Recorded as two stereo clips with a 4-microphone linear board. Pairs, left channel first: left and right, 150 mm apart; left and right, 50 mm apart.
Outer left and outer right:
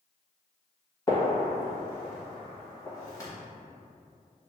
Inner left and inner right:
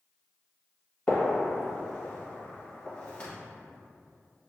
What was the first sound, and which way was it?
A gunshot, 20° left (ahead or behind).